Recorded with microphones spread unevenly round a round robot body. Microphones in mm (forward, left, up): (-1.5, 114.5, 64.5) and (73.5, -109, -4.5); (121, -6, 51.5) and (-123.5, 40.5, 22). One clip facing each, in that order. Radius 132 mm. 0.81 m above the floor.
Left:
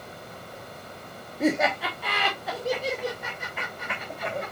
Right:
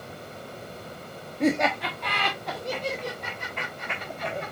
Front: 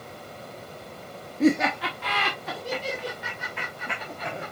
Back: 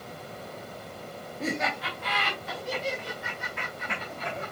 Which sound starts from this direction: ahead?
Laughter, at 1.4 s.